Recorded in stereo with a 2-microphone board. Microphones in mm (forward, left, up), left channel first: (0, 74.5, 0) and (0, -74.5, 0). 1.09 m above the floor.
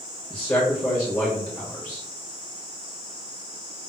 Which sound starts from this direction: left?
A man speaking, at 0.3 s.